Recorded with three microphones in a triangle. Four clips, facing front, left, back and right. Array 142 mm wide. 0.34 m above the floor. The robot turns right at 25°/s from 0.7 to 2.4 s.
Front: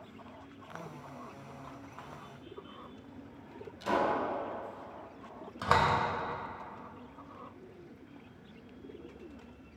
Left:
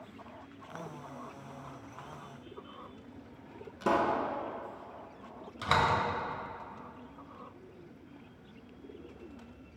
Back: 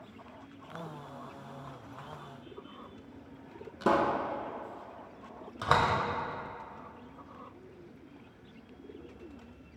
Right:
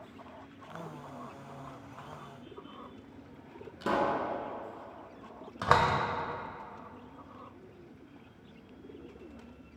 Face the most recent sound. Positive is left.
turn(degrees=-100)